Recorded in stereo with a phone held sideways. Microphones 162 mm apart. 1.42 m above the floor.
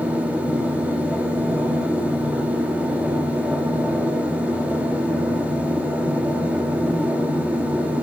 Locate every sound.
0.0 s a machine running: 10° right (ahead or behind), 2 m